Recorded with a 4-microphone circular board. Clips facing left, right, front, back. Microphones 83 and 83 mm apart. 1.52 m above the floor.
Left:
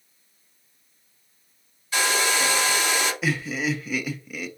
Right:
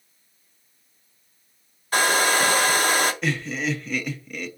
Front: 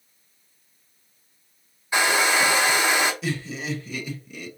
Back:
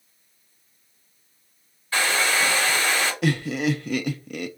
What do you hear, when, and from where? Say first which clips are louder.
1.9 s a hair dryer: right 4 dB, front 2 dB; 65° right, 0.5 m
3.2 s laughter: even, back 6 dB; 170° left, 0.5 m